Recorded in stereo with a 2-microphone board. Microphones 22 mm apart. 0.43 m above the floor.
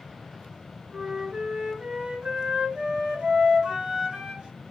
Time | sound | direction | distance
0.9 | a flute | 35° right (ahead or behind) | 6.5 m